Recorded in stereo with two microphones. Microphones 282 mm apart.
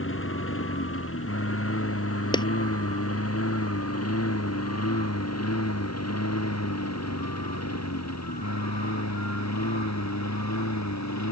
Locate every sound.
0.0 s a lawn mower: 50° left (ahead or behind); by 11.3 s 75° left (ahead or behind)
2.3 s a clap: 15° left (ahead or behind)